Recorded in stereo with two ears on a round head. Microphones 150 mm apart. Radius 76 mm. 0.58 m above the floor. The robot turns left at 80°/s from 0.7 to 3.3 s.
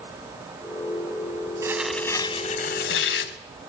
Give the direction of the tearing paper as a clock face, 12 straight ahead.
5 o'clock.